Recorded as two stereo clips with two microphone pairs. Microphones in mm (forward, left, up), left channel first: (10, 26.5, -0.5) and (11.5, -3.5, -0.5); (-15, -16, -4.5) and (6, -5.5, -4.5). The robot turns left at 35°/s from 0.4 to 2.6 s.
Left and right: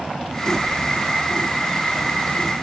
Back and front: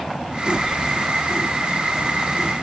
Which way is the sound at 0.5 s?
60° left.